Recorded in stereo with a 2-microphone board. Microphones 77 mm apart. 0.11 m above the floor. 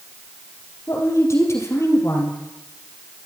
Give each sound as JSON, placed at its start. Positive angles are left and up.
{"t": 0.9, "sound": "a woman speaking", "side_deg": 40, "distance_m": 3.0}